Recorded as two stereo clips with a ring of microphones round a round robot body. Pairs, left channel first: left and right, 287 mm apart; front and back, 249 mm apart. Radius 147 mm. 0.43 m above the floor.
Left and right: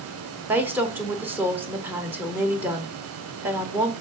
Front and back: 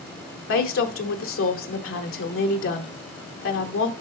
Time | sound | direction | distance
0.5 | a woman speaking | 10° right | 1.1 m